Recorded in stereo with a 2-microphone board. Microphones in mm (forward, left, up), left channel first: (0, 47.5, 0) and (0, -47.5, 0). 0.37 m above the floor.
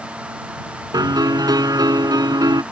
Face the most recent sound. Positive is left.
turn(degrees=-45)  # may be behind; listen again after turning